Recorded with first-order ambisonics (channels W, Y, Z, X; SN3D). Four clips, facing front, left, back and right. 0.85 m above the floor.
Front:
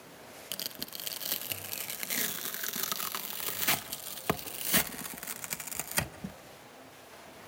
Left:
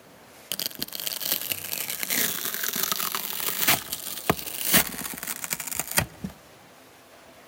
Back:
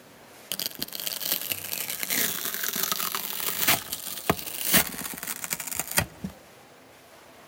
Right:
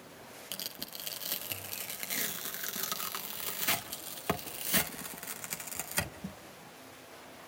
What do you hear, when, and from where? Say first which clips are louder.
0.5 s tearing paper: left 9 dB, back 6 dB; 125° left, 0.5 m